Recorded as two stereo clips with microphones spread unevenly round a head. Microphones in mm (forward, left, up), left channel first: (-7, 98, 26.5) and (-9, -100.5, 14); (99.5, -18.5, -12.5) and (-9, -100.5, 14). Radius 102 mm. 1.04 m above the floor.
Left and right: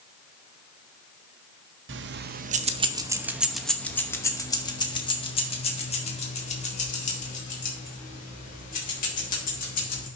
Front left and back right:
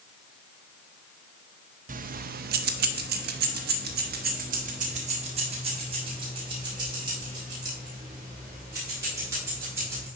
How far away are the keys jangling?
About 0.8 m.